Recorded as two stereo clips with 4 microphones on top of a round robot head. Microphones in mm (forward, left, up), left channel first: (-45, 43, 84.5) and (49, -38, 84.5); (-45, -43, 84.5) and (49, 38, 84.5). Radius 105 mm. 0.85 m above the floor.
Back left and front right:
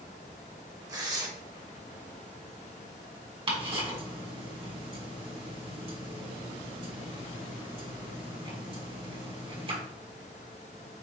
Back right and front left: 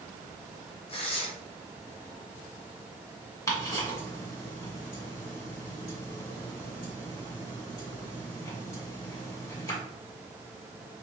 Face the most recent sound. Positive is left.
turn(degrees=-75)